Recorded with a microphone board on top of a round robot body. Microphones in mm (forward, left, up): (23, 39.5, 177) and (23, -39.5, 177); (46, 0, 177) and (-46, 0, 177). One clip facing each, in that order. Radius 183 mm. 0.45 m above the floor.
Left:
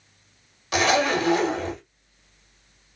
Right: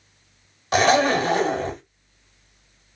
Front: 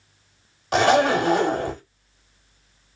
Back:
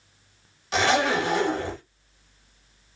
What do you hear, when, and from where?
0.7 s a zipper: 40° right, 1.4 m